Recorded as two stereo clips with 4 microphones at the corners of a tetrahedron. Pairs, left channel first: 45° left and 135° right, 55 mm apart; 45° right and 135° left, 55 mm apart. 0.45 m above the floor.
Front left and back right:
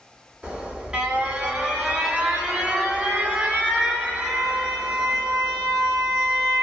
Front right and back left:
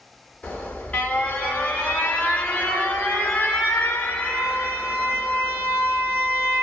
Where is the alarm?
85° right, 1.6 m.